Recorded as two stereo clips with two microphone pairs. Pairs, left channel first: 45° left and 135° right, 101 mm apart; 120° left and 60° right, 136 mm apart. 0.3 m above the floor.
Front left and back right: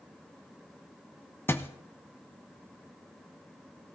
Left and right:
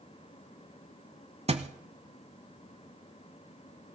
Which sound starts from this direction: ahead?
A thud, at 1.5 s.